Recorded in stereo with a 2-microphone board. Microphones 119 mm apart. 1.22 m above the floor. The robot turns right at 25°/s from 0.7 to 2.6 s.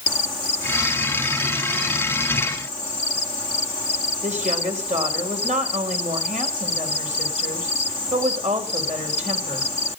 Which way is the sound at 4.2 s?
85° right.